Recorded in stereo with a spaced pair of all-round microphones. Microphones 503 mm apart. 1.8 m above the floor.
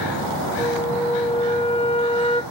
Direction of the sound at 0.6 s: 10° left (ahead or behind).